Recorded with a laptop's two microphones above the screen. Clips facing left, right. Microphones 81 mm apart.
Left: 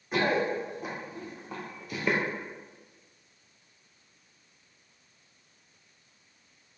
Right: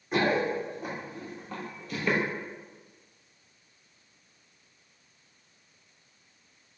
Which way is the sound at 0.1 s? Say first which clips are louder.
Right 1 dB; centre (ahead or behind).